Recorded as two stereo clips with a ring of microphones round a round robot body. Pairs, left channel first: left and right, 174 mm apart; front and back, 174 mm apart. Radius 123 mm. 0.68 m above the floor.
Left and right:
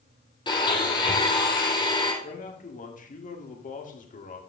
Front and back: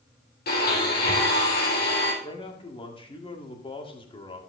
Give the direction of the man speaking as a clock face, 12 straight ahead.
10 o'clock.